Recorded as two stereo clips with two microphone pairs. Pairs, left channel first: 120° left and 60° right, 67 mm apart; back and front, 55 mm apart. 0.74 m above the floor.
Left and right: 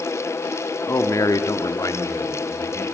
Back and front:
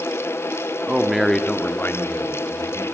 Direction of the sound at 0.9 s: 75° left.